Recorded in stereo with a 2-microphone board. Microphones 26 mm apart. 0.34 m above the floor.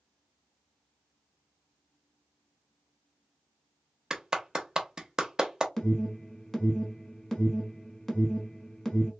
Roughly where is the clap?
Right.